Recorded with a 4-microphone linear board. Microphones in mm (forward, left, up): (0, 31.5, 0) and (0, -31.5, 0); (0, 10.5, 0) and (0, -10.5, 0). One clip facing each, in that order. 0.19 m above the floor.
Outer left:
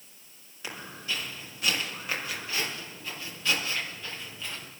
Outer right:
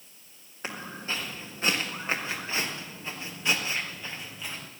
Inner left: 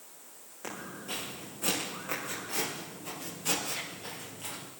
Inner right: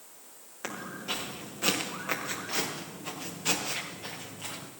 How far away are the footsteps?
About 5 m.